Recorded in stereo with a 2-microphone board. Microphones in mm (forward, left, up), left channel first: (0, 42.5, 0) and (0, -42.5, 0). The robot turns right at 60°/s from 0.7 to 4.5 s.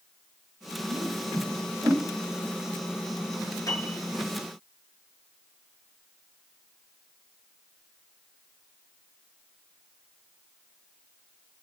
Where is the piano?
45° left (ahead or behind), 8 m; by 4.0 s 25° left (ahead or behind), 8 m.